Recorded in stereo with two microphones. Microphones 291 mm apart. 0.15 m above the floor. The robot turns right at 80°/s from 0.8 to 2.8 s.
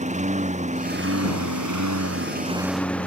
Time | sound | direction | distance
0.0 | a lawn mower | 155° right | ?